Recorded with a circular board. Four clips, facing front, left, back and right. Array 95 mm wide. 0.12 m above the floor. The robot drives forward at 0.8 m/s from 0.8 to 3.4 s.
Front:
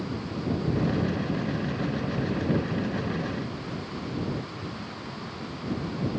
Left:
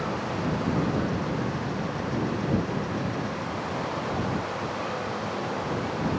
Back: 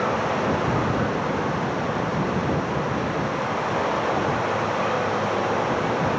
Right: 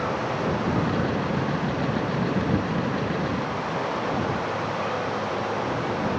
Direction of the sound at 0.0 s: 165° right.